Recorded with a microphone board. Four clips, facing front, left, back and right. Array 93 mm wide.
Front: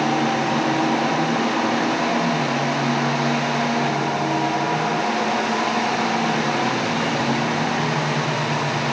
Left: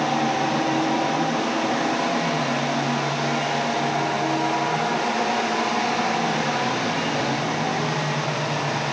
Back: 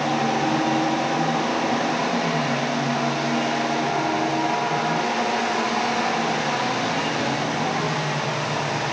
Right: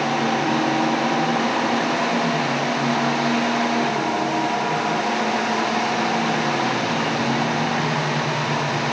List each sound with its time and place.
Only background noise.